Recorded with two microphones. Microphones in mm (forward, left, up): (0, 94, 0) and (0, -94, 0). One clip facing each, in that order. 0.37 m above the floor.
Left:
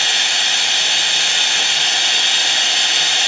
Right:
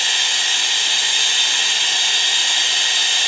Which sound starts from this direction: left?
Running water, at 0.0 s.